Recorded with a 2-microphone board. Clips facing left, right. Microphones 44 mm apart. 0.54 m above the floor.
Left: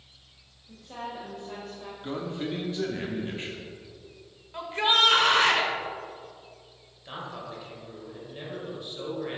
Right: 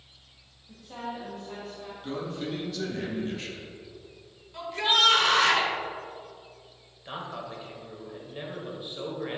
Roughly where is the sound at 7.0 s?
Centre.